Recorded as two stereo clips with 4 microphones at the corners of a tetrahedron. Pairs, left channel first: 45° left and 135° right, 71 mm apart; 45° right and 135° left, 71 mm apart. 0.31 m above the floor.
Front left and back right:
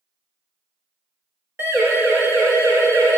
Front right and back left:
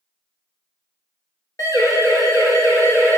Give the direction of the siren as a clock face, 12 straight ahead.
3 o'clock.